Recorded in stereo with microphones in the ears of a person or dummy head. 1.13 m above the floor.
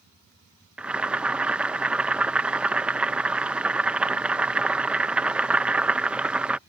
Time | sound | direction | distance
0.8 | boiling | 5° right (ahead or behind) | ?